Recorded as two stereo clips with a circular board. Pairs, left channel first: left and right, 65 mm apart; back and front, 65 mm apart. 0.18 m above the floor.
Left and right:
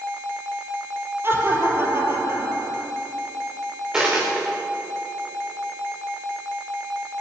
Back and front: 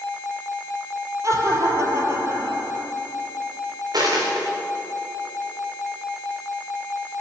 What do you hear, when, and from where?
1.2 s laughter: 35° right, 4.5 m; by 2.8 s 40° right, 3.5 m
3.9 s a dropped coin: 15° right, 6 m